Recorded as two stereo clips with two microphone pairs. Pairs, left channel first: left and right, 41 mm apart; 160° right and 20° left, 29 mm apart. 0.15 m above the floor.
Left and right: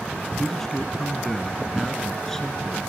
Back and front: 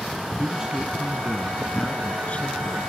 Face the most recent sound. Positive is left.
turn(degrees=170)